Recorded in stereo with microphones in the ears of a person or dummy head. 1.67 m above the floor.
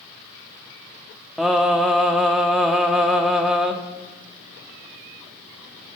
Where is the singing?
5° right (ahead or behind), 1.2 m.